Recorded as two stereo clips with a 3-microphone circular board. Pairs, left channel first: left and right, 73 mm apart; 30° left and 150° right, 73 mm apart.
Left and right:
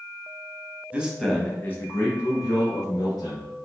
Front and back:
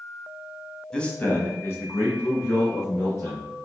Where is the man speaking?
40° right, 1.1 m; by 3.5 s 75° left, 3 m.